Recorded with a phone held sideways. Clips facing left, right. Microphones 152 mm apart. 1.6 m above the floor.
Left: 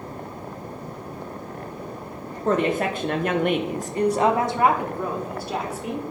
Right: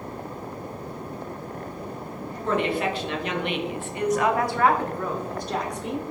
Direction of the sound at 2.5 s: 40° left (ahead or behind).